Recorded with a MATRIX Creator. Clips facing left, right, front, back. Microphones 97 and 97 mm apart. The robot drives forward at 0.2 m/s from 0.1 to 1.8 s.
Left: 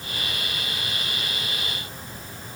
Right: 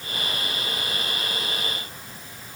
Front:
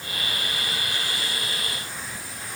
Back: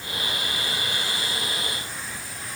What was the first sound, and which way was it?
Only background noise.